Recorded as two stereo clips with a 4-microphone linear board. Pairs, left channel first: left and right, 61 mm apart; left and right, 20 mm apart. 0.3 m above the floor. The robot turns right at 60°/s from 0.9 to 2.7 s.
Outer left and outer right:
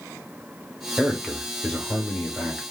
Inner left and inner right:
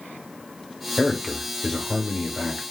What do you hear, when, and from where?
1.0 s a man speaking: centre (ahead or behind), 0.9 m; by 2.6 s 20° left (ahead or behind), 0.9 m